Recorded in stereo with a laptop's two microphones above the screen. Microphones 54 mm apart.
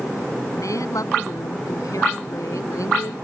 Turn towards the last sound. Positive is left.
turn(degrees=75)  # may be behind; listen again after turning